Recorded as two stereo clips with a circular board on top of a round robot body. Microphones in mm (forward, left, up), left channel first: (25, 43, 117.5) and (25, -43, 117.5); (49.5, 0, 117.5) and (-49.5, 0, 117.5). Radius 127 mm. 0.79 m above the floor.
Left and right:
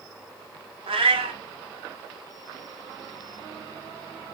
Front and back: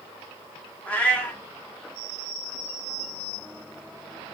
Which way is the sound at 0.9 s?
75° right.